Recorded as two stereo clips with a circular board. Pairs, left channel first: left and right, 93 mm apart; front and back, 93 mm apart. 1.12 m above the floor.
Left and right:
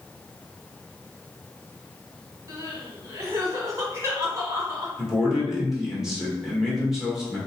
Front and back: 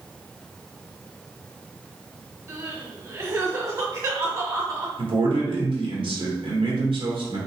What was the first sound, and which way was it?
Crying, 135° right.